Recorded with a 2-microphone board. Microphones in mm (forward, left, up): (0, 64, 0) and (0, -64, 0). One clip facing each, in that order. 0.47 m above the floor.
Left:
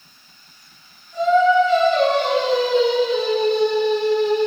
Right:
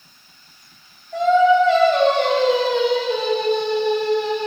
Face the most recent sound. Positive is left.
turn(degrees=-65)  # may be behind; listen again after turning